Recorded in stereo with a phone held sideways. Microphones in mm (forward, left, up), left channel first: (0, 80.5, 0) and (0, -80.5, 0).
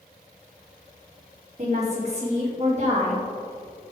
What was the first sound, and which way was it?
A woman speaking, 45° right (ahead or behind).